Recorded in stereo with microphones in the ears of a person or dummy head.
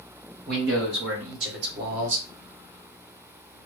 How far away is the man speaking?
About 1.2 m.